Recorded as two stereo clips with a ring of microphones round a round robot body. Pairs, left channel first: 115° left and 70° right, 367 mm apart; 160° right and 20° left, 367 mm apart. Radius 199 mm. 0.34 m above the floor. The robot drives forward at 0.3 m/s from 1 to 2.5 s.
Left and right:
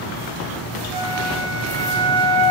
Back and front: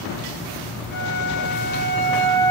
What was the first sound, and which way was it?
A flute, 90° right.